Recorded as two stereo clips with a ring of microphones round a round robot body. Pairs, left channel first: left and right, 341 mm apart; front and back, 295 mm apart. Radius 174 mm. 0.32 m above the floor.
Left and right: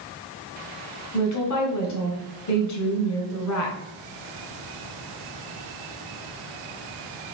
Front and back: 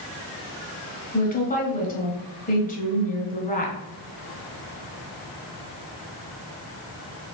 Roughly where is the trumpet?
I don't hear a trumpet.